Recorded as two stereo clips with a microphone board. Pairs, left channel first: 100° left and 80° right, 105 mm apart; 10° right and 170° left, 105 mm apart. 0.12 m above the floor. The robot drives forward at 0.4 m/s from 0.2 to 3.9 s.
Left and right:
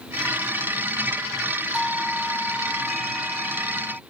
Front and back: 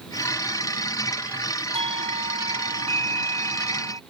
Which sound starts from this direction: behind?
A doorbell, at 1.7 s.